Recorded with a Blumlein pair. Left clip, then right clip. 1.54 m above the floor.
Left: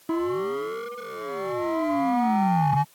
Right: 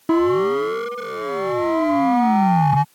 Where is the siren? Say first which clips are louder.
Right 9 dB; 65° right; by 2.8 s 75° right.